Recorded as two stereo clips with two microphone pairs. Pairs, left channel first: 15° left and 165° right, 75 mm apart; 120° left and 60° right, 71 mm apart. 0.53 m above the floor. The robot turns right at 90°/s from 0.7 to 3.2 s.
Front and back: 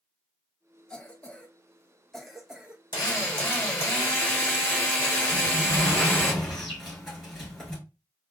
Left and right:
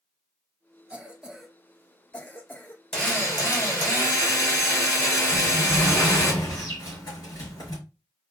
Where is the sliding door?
100° left, 3 m.